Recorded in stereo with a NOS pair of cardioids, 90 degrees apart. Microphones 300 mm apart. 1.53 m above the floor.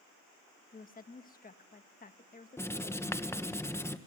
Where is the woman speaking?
30° left, 1.6 m.